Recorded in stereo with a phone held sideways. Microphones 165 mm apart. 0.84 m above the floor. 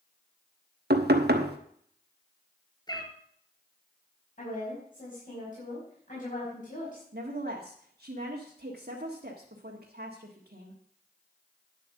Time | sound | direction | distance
0.9 | knocking | 75° right (ahead or behind) | 1.0 m
2.9 | a cat meowing | 25° left (ahead or behind) | 1.7 m
4.4 | a woman speaking | 55° left (ahead or behind) | 5 m
7.1 | a woman speaking | 70° right (ahead or behind) | 1.5 m